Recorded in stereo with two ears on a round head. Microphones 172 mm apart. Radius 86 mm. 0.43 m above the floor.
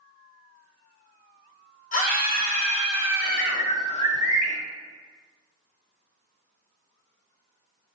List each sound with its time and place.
1.9 s a scream: 45° left (ahead or behind), 1.3 m; by 3.6 s 50° left (ahead or behind), 2.5 m
3.2 s a bird: 30° left (ahead or behind), 0.9 m